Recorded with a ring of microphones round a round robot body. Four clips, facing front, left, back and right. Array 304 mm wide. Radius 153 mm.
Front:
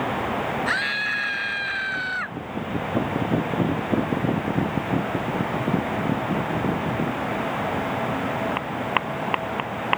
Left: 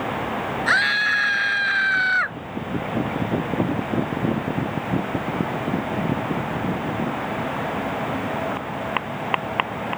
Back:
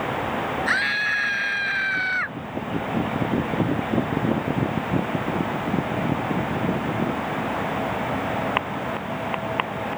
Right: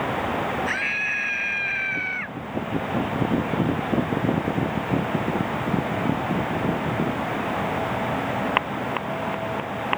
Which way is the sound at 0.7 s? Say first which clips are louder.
Left 7 dB, back 2 dB; 90° left.